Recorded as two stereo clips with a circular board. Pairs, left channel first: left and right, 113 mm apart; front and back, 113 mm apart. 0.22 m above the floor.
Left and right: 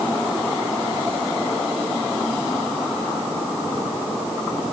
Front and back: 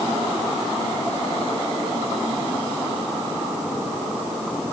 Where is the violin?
No violin in this recording.